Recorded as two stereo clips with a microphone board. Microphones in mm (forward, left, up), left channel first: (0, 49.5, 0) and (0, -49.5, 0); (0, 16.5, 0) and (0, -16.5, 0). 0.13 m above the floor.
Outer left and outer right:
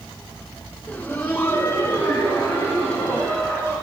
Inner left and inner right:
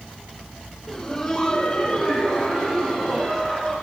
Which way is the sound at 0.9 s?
10° left (ahead or behind).